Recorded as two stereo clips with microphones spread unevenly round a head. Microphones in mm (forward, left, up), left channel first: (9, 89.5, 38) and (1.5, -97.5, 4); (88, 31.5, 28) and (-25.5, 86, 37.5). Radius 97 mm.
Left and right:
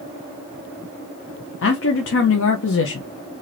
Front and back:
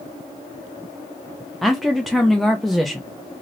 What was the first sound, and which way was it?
A man speaking, 65° left.